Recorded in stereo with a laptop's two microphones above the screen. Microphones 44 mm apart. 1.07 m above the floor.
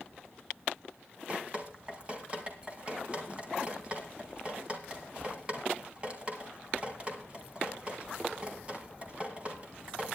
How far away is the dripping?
About 2 m.